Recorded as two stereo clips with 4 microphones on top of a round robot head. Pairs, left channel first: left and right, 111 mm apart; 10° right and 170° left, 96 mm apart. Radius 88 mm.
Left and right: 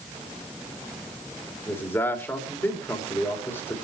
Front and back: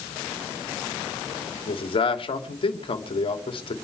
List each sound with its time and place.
1.7 s a man speaking: 15° left, 2.5 m